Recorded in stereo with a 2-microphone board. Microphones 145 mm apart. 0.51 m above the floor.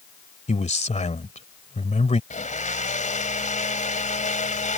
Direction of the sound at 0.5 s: 60° left (ahead or behind).